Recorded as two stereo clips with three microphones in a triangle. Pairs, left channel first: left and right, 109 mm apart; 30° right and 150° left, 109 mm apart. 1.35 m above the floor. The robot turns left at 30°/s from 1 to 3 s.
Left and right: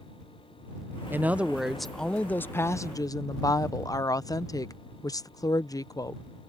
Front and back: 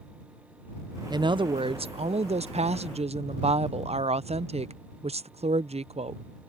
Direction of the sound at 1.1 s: 160° right.